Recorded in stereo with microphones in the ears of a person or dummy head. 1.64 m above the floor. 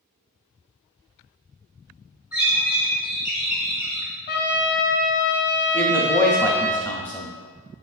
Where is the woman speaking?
5° left (ahead or behind), 0.6 m.